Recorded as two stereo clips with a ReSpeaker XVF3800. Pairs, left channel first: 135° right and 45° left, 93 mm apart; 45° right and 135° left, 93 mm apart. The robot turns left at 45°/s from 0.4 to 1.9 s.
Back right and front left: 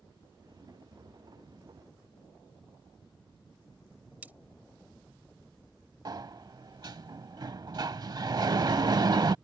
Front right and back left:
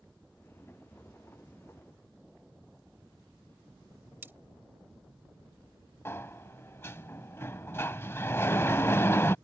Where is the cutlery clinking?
95° left.